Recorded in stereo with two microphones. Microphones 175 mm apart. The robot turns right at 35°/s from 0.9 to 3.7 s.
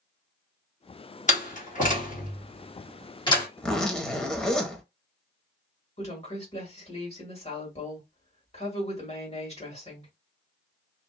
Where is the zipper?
10° left (ahead or behind), 0.6 m; by 4.8 s 5° left (ahead or behind), 0.6 m.